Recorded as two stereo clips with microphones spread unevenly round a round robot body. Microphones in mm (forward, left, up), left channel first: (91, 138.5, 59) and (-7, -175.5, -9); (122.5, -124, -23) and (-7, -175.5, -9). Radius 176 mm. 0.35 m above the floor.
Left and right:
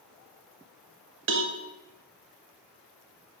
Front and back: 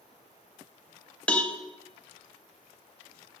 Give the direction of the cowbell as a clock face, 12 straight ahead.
2 o'clock.